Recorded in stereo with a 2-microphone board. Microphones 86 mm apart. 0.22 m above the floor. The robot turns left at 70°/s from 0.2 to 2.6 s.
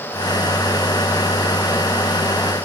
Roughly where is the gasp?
No gasp in this recording.